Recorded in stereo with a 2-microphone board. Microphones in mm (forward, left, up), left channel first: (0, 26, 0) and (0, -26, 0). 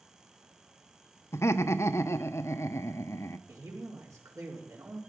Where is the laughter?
65° left (ahead or behind), 0.8 m.